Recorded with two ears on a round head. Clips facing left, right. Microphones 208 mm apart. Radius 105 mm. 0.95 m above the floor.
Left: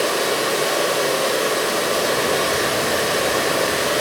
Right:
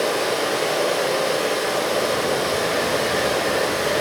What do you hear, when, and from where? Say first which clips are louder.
0.0 s running water: left 1 dB; 50° left (ahead or behind), 2.5 m